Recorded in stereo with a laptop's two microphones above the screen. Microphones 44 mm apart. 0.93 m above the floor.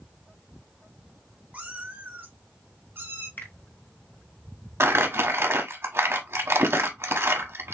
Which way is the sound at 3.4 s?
50° left (ahead or behind).